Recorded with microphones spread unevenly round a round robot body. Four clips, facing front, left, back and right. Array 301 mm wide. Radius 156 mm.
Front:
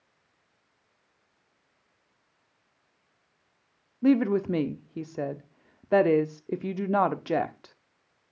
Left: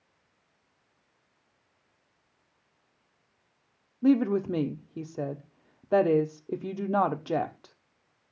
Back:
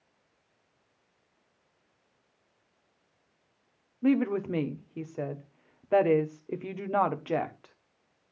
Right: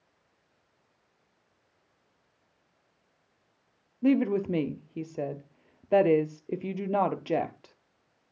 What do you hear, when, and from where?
4.0 s a woman speaking: 15° left, 1.1 m